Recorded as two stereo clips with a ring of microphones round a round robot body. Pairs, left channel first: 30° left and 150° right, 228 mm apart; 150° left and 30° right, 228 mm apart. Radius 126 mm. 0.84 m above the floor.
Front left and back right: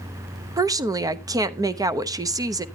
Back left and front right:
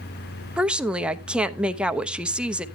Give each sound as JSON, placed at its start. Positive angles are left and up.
{"t": 0.6, "sound": "a woman speaking", "azimuth_deg": -110, "distance_m": 0.6}